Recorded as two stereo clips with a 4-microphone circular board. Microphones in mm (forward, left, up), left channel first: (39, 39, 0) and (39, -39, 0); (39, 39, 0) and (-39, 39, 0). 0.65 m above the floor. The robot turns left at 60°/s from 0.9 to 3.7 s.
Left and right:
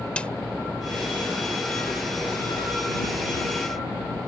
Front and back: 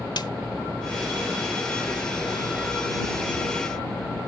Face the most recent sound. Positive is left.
turn(degrees=-155)